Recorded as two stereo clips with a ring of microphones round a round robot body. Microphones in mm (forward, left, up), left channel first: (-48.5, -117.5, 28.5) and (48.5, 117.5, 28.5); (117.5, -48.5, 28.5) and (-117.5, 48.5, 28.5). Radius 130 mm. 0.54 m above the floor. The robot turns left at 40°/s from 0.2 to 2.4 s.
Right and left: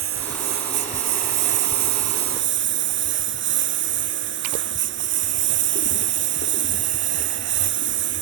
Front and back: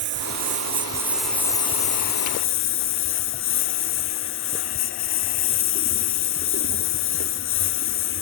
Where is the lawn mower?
110° left; by 8.2 s 20° left.